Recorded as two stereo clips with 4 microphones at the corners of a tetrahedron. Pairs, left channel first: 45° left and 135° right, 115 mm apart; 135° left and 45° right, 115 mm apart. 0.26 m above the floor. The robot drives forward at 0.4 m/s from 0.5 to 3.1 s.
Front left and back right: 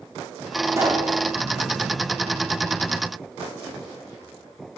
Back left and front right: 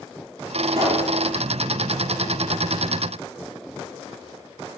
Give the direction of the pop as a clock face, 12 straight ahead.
2 o'clock.